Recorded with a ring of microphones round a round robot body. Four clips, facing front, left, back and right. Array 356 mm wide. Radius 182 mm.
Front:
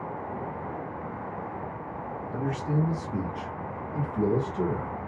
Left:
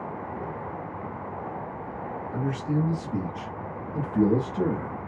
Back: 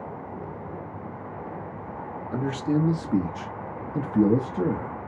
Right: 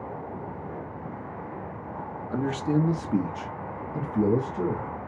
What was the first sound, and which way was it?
A man speaking, 130° right.